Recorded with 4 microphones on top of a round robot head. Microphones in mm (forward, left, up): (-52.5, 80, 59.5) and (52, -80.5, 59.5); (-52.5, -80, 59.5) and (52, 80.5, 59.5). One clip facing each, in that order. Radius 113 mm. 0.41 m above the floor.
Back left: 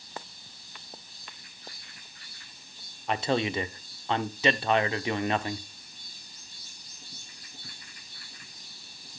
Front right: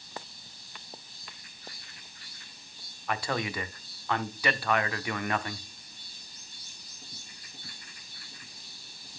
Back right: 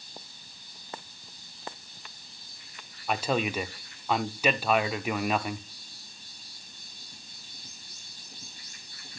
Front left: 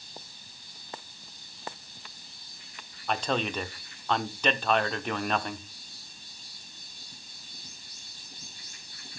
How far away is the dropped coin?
I don't hear a dropped coin.